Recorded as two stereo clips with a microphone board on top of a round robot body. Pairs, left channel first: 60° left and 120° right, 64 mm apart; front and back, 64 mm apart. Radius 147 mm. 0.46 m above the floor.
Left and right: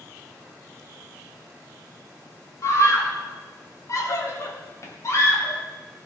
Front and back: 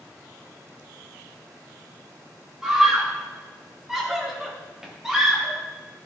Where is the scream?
95° left, 3.5 m.